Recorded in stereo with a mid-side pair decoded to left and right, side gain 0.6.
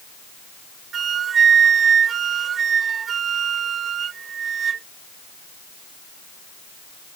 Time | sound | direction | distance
0.9 | a flute | 40° right | ?